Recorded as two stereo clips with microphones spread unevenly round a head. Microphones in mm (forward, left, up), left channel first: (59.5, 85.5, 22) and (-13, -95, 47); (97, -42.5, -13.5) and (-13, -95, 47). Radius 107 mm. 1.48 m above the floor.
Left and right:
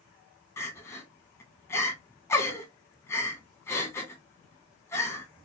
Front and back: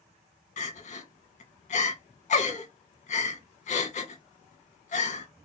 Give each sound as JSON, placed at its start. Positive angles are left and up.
{"t": 0.6, "sound": "crying", "azimuth_deg": -10, "distance_m": 0.7}